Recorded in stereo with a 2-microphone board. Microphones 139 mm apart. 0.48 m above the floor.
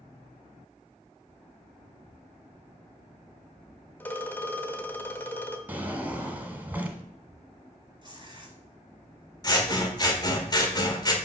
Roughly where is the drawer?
Centre.